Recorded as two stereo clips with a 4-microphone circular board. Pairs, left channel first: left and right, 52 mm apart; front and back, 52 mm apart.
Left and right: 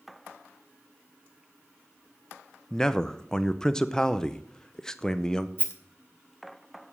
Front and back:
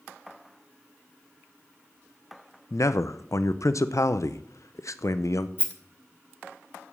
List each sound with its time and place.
2.7 s a man speaking: 15° left, 0.5 m
5.6 s a rattle: 50° right, 1.9 m